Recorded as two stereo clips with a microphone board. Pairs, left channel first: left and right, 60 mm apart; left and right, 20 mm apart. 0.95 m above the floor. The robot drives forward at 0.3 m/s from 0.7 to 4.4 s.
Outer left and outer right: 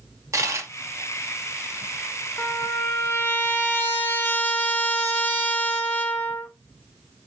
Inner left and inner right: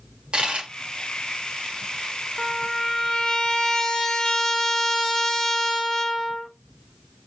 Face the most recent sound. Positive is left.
turn(degrees=30)  # may be behind; listen again after turning